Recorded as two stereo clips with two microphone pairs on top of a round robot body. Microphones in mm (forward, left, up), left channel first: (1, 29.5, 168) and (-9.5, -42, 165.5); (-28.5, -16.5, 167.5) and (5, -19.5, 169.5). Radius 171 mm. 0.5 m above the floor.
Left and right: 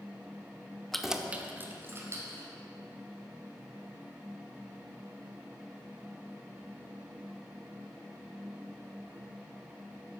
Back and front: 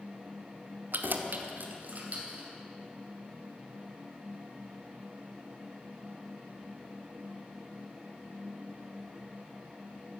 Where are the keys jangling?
5° right, 1.0 m; by 2.5 s 45° right, 3 m.